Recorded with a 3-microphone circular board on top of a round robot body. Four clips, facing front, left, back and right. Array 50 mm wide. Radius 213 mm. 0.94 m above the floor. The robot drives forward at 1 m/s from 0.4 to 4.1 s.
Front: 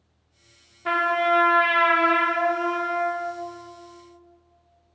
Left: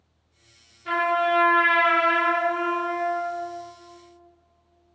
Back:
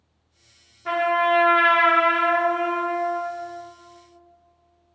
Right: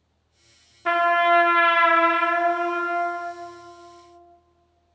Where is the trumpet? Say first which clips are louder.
Right 4 dB, back 1 dB; 75° right, 0.9 m; by 3.3 s 160° right, 2.5 m.